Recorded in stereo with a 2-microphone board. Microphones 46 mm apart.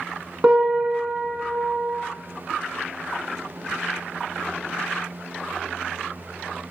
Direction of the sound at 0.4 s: 25° right (ahead or behind).